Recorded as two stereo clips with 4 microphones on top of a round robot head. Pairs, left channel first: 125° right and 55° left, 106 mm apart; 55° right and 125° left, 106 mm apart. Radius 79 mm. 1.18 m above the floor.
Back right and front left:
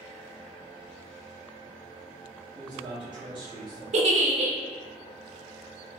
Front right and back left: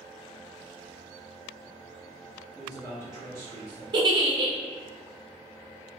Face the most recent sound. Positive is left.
turn(degrees=75)